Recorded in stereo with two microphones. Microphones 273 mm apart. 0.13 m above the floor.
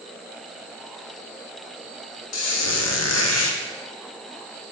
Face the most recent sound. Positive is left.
turn(degrees=75)  # may be behind; listen again after turning